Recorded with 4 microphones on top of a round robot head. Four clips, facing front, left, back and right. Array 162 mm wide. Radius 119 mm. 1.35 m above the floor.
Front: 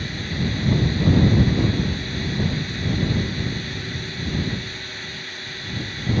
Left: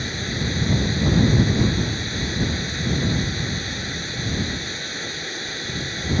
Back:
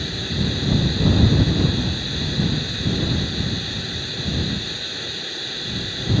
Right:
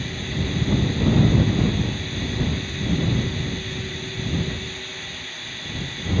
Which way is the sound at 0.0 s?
125° left.